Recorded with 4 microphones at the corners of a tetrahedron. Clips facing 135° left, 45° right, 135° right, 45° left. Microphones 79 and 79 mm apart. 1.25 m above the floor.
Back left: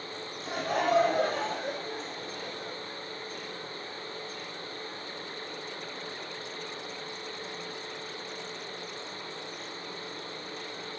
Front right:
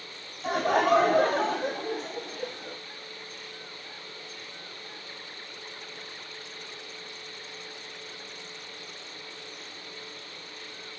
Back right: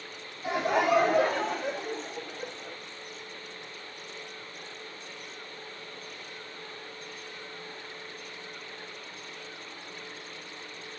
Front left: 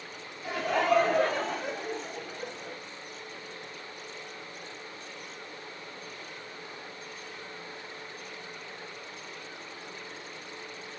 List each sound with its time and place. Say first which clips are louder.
0.4 s laughter: front right 5 dB, back right 1 dB; 65° right, 3 m; by 2.8 s 30° right, 4 m